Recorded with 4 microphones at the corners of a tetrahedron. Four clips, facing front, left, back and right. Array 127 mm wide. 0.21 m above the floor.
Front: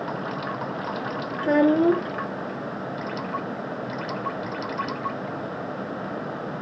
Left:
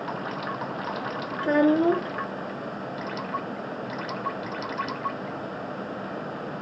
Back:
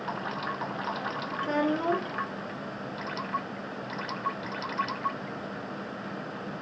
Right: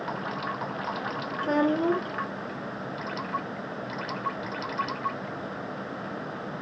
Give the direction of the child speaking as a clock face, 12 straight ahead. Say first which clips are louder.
Left 4 dB, front 9 dB; 11 o'clock.